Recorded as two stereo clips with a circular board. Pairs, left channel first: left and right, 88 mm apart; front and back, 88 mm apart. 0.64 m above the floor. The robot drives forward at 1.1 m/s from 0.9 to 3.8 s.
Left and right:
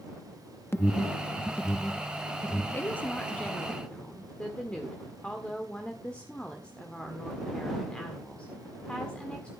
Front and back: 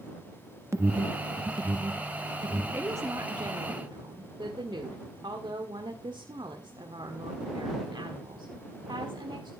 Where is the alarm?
135° left, 0.8 m; by 2.6 s 170° left, 2.5 m.